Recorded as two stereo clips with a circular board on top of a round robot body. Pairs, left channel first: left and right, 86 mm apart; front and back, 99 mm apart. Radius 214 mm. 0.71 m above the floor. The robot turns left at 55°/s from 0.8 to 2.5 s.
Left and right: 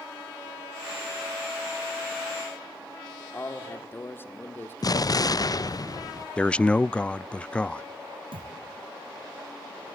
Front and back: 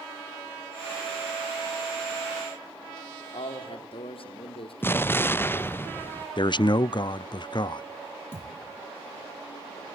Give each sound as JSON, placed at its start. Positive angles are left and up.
{"t": 3.3, "sound": "a man speaking", "azimuth_deg": 25, "distance_m": 2.5}
{"t": 4.8, "sound": "an explosion", "azimuth_deg": 65, "distance_m": 0.9}
{"t": 6.4, "sound": "a man speaking", "azimuth_deg": 15, "distance_m": 0.5}
{"t": 8.3, "sound": "a thud", "azimuth_deg": -70, "distance_m": 3.0}